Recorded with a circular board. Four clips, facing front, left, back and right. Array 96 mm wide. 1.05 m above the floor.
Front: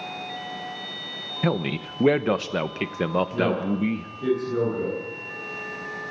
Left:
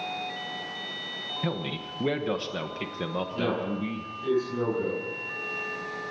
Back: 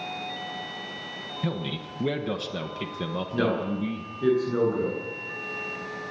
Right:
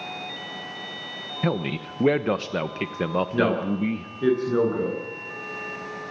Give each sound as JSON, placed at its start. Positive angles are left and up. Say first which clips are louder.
{"t": 1.4, "sound": "a man speaking", "louder": "right 6 dB, front 7 dB", "azimuth_deg": -35, "distance_m": 1.0}
{"t": 3.3, "sound": "a man speaking", "louder": "right 5 dB, front 2 dB", "azimuth_deg": -105, "distance_m": 10.0}